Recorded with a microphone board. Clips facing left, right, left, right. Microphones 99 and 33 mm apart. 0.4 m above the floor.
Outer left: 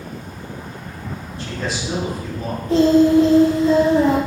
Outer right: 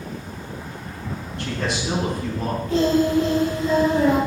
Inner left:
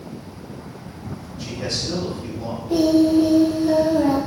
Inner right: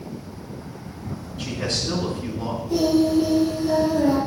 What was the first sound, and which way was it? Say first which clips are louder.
A man speaking: even, inner right 1 dB; 65° right (ahead or behind).